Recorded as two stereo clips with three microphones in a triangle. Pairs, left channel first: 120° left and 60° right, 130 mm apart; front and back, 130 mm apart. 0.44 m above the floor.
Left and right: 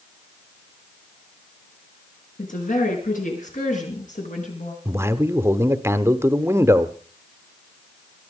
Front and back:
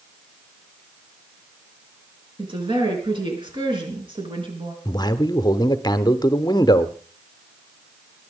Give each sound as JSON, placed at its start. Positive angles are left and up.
{"t": 2.4, "sound": "a woman speaking", "azimuth_deg": 125, "distance_m": 6.5}
{"t": 4.8, "sound": "a man speaking", "azimuth_deg": -10, "distance_m": 0.9}